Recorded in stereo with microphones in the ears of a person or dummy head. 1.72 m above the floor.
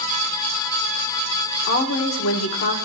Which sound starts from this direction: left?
A woman speaking, at 1.7 s.